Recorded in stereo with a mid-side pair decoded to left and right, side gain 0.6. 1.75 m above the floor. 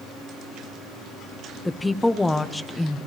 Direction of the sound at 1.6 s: 10° left.